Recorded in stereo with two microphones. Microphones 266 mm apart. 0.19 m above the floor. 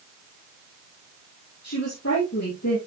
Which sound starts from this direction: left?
A woman speaking, at 1.6 s.